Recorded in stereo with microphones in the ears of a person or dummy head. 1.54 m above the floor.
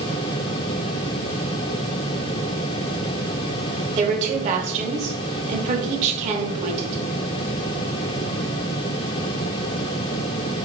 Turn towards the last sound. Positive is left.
turn(degrees=-40)  # may be behind; listen again after turning